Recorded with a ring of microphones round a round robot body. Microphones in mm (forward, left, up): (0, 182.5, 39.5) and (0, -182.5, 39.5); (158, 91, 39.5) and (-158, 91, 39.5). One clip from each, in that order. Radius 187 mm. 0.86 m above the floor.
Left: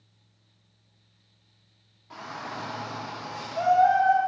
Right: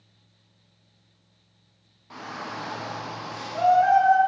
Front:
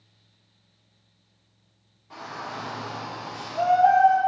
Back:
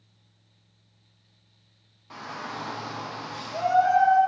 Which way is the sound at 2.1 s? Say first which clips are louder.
Right 1 dB, even; 165° right.